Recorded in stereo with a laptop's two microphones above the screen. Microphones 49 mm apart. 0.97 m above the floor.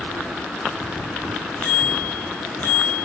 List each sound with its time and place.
1.6 s a bicycle bell: 35° left (ahead or behind), 4 m